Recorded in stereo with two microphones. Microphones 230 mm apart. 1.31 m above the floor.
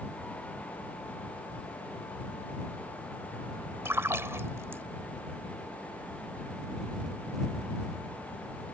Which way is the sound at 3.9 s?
10° right (ahead or behind).